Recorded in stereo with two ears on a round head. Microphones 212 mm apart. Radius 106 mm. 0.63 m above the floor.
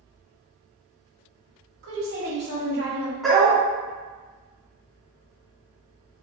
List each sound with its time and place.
1.8 s a woman speaking: 45° right (ahead or behind), 1.7 m
3.2 s a dog barking: centre (ahead or behind), 0.9 m